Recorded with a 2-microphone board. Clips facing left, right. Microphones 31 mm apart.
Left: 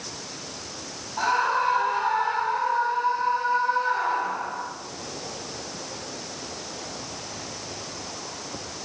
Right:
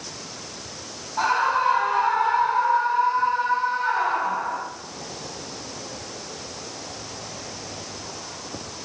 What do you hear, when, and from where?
1.2 s a scream: 10° right (ahead or behind), 7 m; by 4.7 s 25° right (ahead or behind), 8 m